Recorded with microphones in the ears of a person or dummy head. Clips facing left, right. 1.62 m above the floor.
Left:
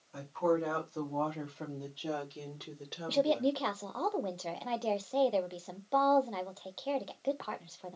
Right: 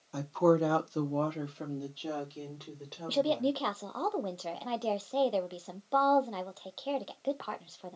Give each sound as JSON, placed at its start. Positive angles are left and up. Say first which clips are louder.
{"t": 0.1, "sound": "a woman speaking", "louder": "right 5 dB", "side_deg": -70, "distance_m": 1.0}
{"t": 3.1, "sound": "a woman speaking", "louder": "even", "side_deg": -5, "distance_m": 0.5}